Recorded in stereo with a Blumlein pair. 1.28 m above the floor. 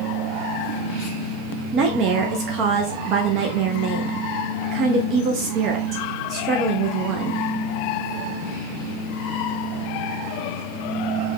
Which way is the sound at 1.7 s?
35° right.